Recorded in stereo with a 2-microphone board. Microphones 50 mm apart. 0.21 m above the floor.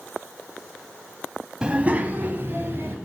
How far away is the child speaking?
About 0.8 m.